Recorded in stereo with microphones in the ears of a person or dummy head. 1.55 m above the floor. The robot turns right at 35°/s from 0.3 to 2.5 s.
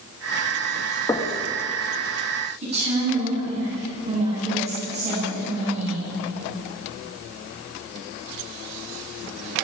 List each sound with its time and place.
1.1 s knocking: 15° left (ahead or behind), 2 m; by 1.4 s 25° left (ahead or behind), 2 m
2.6 s a woman speaking: 30° right (ahead or behind), 9.5 m